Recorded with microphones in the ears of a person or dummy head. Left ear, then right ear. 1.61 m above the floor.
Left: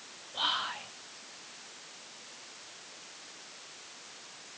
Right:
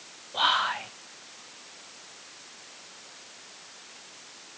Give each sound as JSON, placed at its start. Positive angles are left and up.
{"t": 0.3, "sound": "whispering", "side_deg": -30, "distance_m": 0.7}